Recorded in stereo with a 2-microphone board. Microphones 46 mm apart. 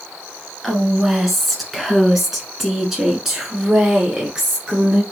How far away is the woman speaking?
About 1.4 m.